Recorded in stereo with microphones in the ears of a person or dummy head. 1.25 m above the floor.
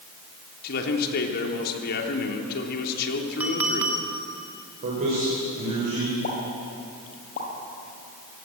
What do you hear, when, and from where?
0.6 s a man speaking: 60° left (ahead or behind), 3 m
3.4 s a clink: 10° right (ahead or behind), 1.7 m
4.8 s a man speaking: 50° right (ahead or behind), 5.5 m
6.2 s a pop: 50° left (ahead or behind), 5 m